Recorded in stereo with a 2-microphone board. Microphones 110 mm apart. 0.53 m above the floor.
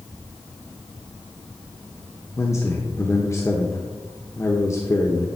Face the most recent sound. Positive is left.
turn(degrees=25)  # may be behind; listen again after turning